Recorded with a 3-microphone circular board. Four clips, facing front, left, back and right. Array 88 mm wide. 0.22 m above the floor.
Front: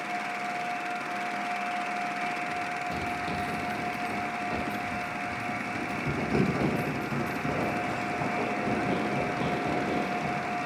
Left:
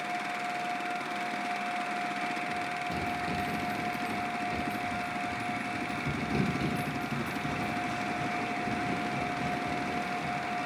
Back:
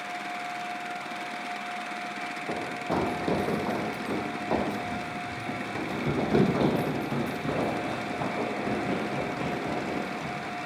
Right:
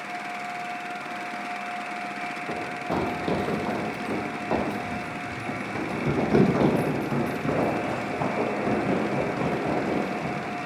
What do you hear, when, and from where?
2.5 s running footsteps: 130° right; by 10.7 s 75° right